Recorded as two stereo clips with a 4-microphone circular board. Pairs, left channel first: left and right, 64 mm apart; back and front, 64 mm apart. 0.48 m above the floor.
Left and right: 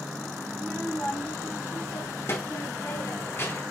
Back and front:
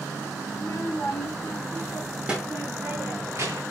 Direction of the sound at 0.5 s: 160° left.